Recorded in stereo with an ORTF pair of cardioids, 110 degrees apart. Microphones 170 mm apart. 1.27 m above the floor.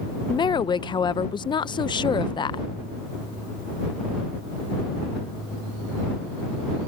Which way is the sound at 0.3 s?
30° left.